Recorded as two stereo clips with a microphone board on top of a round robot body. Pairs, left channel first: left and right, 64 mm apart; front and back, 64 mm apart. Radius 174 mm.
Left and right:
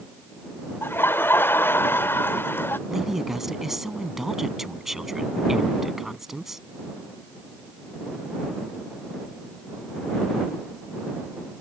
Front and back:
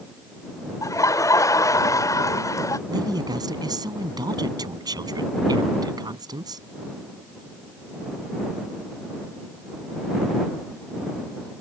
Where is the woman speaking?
175° right.